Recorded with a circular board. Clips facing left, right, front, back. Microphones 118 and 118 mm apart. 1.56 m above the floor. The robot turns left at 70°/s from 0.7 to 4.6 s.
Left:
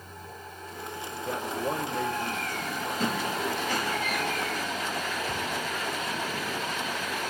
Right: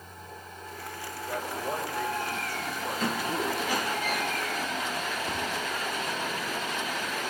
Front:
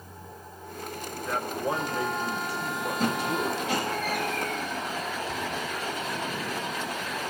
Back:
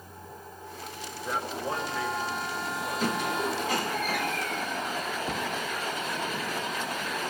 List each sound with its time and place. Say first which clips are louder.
1.2 s a man speaking: left 2 dB, front 2 dB; 105° left, 1.6 m; by 3.6 s 60° right, 1.6 m
3.0 s a squeak: even, front 1 dB; 40° left, 6.5 m; by 4.2 s 45° right, 6.5 m
5.3 s a cupboard door: even, back 1 dB; 165° right, 1.6 m